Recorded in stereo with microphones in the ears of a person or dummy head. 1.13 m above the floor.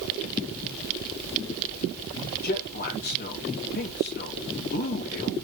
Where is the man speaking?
55° left (ahead or behind), 1.4 m.